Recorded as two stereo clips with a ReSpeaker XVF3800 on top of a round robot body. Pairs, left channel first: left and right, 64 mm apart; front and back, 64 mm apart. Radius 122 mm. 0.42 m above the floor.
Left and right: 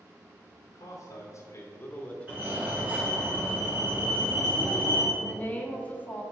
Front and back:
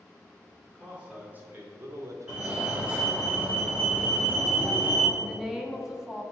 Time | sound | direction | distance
0.7 | a man speaking | 100° left | 1.9 m
2.3 | a fire alarm | 130° right | 2 m
5.2 | a woman speaking | 110° left | 1.4 m